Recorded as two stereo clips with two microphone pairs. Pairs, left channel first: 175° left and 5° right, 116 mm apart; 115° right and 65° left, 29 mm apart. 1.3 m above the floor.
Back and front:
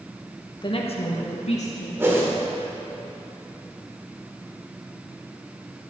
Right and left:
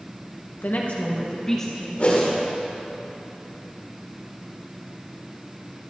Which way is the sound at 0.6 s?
130° right.